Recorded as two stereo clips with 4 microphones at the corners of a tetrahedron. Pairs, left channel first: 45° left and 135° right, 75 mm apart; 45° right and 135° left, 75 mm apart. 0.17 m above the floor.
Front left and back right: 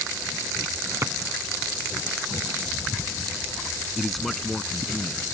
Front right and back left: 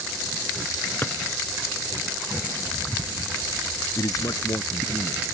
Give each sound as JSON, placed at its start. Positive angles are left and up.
{"t": 1.0, "sound": "a drawer", "azimuth_deg": -95}
{"t": 4.0, "sound": "a man speaking", "azimuth_deg": -45}